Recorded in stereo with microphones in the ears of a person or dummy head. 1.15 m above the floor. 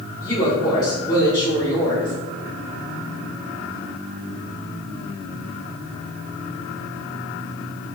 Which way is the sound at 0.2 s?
25° left (ahead or behind).